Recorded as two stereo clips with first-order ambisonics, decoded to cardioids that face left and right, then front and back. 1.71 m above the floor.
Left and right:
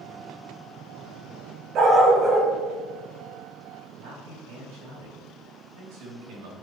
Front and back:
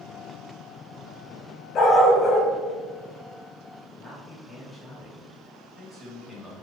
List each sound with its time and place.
1.8 s a dog barking: 50° right, 2.0 m
4.0 s a man speaking: 85° right, 3 m